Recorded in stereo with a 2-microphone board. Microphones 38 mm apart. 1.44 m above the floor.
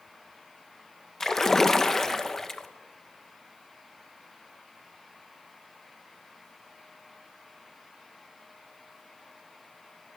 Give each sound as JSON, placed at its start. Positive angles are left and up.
{"t": 1.2, "sound": "a splash", "side_deg": 10, "distance_m": 1.0}